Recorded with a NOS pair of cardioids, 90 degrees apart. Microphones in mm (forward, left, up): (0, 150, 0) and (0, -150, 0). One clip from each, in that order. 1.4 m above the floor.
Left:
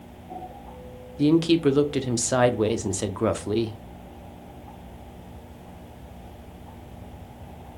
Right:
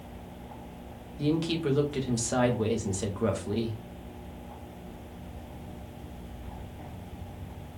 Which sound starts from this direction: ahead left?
A woman speaking, at 1.2 s.